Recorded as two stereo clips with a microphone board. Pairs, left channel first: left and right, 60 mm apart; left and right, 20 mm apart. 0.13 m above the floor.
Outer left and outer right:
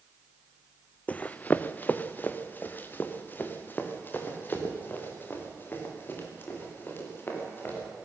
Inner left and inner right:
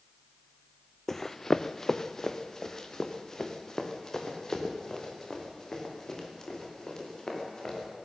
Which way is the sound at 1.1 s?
25° left (ahead or behind).